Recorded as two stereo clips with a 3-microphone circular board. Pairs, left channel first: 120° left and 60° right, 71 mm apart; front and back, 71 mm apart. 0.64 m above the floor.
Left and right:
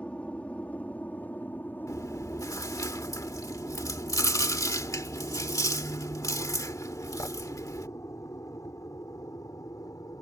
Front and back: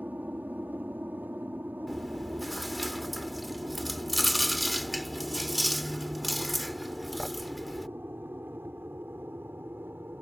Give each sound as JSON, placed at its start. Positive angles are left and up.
{"t": 0.0, "sound": "an aircraft", "azimuth_deg": 170}
{"t": 1.9, "sound": "chewing", "azimuth_deg": 90}